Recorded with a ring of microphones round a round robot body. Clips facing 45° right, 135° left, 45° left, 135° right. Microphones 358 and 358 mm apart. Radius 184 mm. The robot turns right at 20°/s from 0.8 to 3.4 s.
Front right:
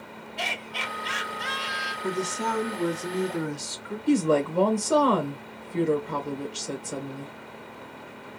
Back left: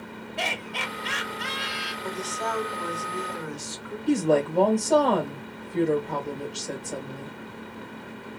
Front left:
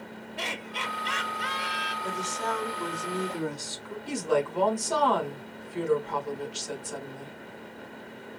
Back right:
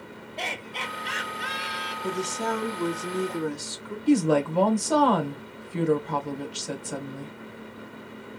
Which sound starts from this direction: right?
A woman speaking, at 2.0 s.